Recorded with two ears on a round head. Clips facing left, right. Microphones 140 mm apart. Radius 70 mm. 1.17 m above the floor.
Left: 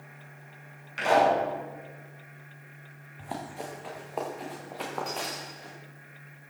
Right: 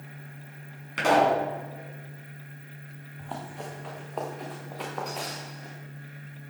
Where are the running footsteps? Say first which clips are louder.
Left 1 dB; 10° left (ahead or behind), 4 m; by 5.8 s 5° right (ahead or behind), 5.5 m.